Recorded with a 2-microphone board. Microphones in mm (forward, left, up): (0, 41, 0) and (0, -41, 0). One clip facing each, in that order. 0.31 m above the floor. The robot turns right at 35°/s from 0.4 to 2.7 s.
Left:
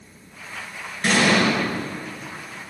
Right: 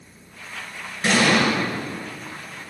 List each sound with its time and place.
1.0 s an explosion: 10° right (ahead or behind), 3.5 m; by 1.5 s 5° left (ahead or behind), 3.5 m